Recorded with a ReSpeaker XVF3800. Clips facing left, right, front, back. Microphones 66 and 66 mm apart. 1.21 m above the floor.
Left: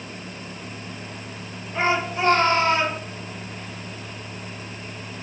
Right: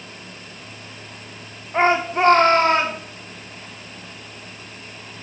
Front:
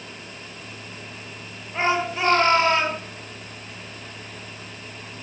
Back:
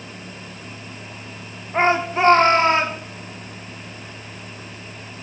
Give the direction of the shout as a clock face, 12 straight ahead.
4 o'clock.